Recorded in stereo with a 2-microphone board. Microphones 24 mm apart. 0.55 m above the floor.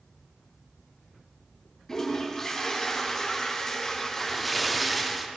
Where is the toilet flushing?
25° left (ahead or behind), 3 m.